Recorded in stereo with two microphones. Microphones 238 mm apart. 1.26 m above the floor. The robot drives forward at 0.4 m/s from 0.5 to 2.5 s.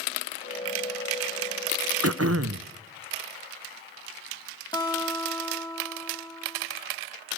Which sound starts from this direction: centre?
A guitar, at 4.7 s.